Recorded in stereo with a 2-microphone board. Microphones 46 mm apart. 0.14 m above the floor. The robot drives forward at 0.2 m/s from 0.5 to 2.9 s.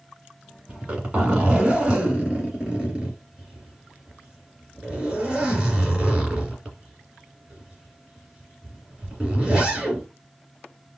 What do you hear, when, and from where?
0.7 s a zipper: 25° right (ahead or behind), 1.9 m